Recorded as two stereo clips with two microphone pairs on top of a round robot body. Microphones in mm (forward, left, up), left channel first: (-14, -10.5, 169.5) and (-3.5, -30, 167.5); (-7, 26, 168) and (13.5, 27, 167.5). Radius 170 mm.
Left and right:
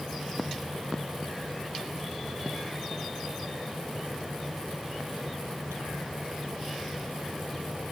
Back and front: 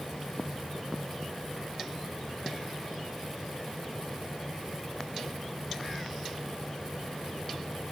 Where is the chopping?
No chopping in this recording.